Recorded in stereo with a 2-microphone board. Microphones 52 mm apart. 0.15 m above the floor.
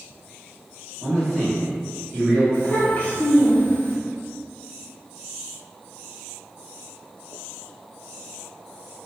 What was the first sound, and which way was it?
A man speaking, 5° left (ahead or behind).